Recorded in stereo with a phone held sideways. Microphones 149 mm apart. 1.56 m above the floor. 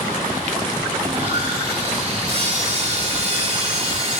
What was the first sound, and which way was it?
Sawing, 50° right (ahead or behind).